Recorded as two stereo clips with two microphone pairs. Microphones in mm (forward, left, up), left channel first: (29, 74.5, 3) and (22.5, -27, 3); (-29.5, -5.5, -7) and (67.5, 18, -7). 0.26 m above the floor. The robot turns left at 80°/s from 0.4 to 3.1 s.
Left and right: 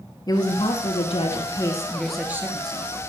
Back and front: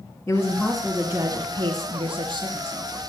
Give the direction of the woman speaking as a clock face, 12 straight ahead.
8 o'clock.